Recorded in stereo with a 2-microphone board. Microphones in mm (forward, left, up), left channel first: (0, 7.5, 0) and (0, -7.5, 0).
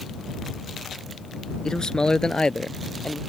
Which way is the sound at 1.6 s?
45° left (ahead or behind).